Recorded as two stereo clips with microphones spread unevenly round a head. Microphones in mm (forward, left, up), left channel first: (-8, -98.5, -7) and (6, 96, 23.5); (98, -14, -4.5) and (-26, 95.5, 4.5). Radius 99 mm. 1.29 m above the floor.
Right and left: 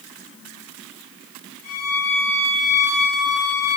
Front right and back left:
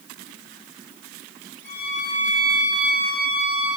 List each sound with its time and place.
1.6 s a violin: 120° right, 4.5 m